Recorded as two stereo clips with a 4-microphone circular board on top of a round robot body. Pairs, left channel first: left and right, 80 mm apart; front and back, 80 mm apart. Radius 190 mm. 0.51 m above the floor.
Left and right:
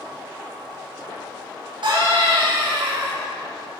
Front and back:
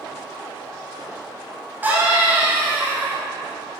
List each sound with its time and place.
1.8 s a scream: 110° right, 6.5 m